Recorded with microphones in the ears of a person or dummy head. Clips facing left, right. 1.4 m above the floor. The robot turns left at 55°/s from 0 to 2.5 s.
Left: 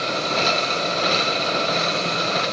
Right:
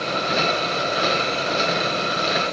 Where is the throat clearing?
I don't hear throat clearing.